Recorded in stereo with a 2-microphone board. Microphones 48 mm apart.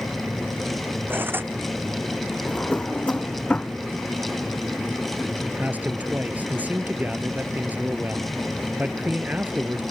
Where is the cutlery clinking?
40° right (ahead or behind).